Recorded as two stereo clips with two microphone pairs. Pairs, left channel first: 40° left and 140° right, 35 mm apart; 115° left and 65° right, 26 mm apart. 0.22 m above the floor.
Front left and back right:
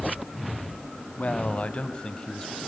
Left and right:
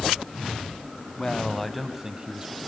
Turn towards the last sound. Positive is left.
turn(degrees=-35)